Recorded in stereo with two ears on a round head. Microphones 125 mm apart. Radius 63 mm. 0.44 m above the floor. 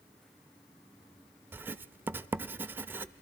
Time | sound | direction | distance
1.5 | writing | 15° right (ahead or behind) | 0.7 m